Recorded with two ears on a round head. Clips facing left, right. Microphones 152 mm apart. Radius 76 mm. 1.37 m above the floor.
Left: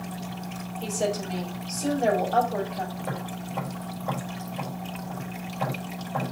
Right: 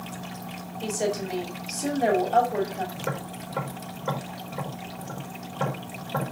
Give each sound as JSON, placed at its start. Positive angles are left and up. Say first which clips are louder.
{"t": 0.8, "sound": "a woman speaking", "louder": "right 1 dB", "side_deg": -15, "distance_m": 3.5}
{"t": 3.0, "sound": "tapping", "louder": "even", "side_deg": -75, "distance_m": 4.5}